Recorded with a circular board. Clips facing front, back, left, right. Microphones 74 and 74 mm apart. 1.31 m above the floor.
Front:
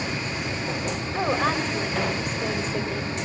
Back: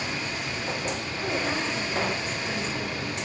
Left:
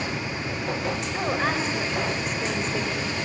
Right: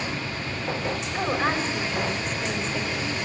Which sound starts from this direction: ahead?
A woman speaking, at 1.1 s.